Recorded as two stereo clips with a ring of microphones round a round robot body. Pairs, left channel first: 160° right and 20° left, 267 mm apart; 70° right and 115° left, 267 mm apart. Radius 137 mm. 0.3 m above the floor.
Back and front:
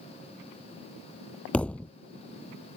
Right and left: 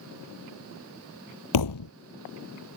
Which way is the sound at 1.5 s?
70° right.